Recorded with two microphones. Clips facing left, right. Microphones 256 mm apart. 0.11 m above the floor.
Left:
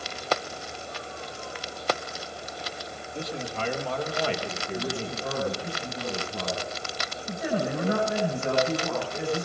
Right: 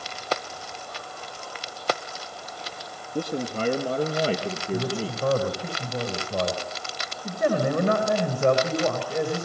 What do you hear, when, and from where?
3.1 s a man speaking: 50° right (ahead or behind), 2.5 m; by 5.7 s 30° right (ahead or behind), 3.5 m
4.7 s a man speaking: 75° right (ahead or behind), 8 m